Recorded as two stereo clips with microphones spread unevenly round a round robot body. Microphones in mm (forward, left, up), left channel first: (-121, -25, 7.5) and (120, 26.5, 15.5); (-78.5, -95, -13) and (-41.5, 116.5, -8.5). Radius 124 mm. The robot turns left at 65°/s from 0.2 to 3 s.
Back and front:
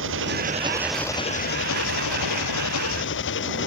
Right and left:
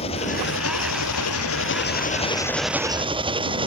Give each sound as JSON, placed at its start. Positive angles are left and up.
{"t": 0.0, "sound": "an engine running", "azimuth_deg": -30}